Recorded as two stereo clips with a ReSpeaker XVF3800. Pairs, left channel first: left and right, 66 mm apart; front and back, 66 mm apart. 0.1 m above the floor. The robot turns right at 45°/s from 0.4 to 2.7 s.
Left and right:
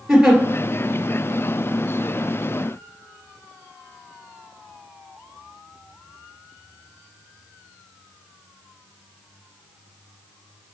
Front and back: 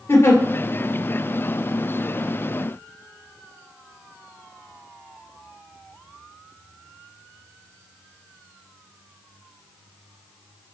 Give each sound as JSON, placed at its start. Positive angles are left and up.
{"t": 0.1, "sound": "a giggle", "azimuth_deg": -10, "distance_m": 2.0}